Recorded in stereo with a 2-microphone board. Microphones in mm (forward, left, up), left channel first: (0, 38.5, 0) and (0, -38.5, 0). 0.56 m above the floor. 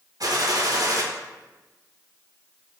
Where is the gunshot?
60° right (ahead or behind), 0.6 m.